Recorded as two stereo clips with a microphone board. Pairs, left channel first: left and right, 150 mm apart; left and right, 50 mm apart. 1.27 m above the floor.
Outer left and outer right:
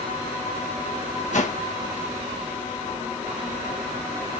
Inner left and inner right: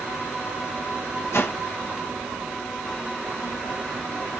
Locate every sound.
1.3 s a whoosh: 60° left (ahead or behind), 0.9 m